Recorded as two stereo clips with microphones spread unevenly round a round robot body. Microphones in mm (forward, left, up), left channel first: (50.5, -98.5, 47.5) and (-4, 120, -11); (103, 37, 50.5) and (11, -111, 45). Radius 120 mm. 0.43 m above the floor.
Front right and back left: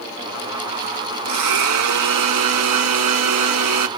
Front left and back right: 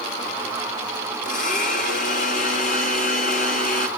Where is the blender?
115° left, 1.0 m.